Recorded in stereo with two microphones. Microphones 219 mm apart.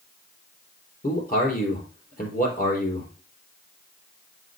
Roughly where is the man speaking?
Left.